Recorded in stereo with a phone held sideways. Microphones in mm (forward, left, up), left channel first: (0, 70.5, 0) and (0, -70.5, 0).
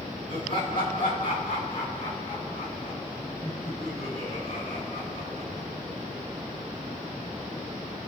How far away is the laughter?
About 7.5 m.